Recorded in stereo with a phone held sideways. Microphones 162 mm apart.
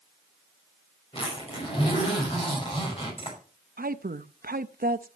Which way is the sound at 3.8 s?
70° right (ahead or behind).